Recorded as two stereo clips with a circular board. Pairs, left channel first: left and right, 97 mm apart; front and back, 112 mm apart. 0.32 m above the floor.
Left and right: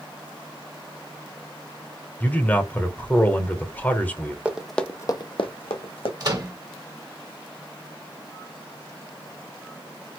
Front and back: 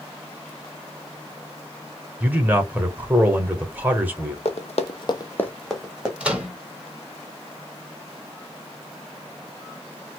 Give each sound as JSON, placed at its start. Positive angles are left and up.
{"t": 2.2, "sound": "a man speaking", "azimuth_deg": 130, "distance_m": 0.9}
{"t": 4.5, "sound": "running footsteps", "azimuth_deg": -15, "distance_m": 0.9}
{"t": 6.2, "sound": "a microwave", "azimuth_deg": -105, "distance_m": 1.2}